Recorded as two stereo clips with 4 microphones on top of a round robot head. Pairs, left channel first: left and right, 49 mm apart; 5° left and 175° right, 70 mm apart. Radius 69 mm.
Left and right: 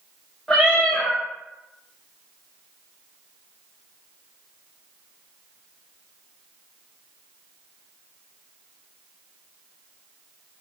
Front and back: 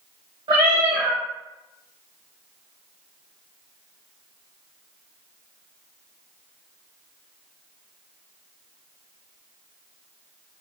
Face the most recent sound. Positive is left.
turn(degrees=175)